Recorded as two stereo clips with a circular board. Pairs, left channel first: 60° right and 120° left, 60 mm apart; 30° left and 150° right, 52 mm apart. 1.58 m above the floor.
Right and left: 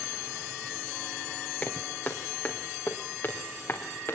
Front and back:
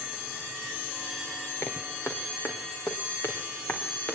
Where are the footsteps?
5° left, 4 m; by 4.1 s 15° right, 4.5 m.